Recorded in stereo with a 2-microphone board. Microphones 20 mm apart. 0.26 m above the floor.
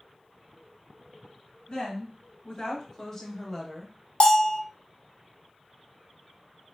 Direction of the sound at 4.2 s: 55° left (ahead or behind).